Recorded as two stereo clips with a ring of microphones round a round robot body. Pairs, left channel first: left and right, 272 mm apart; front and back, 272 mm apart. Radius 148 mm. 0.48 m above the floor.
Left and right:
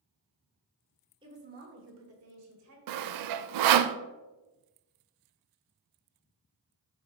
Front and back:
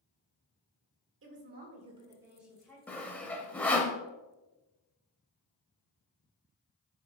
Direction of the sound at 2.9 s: 85° right.